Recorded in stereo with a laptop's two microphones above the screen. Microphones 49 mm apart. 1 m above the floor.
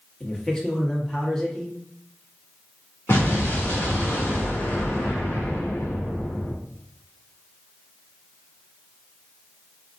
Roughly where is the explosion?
Left.